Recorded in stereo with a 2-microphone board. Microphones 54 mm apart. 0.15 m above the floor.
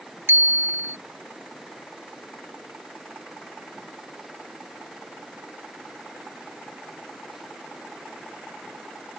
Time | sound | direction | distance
0.3 | a bicycle bell | 50° right (ahead or behind) | ?